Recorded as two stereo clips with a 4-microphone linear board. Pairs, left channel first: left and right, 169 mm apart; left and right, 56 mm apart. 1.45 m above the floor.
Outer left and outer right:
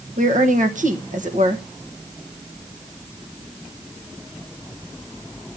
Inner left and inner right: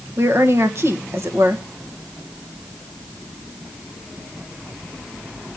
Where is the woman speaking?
50° right (ahead or behind), 1.5 m.